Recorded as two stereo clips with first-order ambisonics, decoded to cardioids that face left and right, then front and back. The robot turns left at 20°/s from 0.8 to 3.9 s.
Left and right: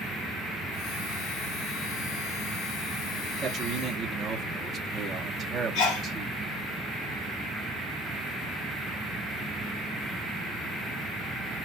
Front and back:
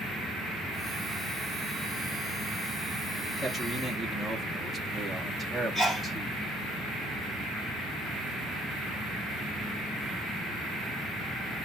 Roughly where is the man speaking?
Right.